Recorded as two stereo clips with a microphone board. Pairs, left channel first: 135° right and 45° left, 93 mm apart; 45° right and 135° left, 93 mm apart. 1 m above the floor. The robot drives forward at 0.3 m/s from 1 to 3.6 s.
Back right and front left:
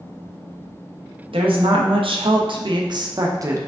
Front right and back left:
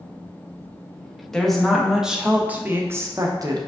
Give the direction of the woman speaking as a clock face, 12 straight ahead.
11 o'clock.